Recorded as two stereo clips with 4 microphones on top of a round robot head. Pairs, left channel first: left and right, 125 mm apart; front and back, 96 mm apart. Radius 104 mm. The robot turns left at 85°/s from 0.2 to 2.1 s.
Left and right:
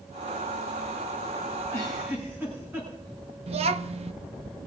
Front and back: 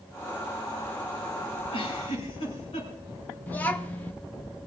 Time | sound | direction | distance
1.7 | a giggle | 20° left | 6.5 m
3.5 | a child speaking | 70° right | 0.9 m